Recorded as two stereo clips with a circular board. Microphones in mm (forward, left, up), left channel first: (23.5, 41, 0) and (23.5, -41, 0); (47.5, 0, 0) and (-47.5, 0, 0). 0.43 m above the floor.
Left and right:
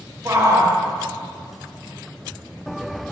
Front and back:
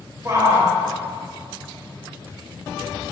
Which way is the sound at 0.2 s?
135° right.